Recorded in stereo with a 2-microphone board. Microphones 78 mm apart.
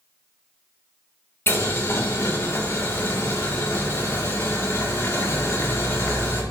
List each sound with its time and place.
1.5 s boiling: 30° left (ahead or behind), 1.5 m